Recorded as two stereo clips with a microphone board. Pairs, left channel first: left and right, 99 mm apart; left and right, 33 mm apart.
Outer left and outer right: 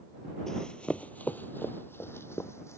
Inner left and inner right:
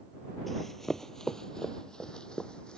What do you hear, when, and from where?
0.5 s running footsteps: 5° left (ahead or behind); by 2.8 s 30° left (ahead or behind)